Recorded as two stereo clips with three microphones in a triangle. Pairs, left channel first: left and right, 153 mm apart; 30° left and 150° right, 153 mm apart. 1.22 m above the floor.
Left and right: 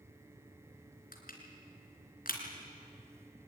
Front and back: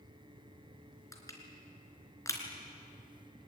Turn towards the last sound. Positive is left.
turn(degrees=100)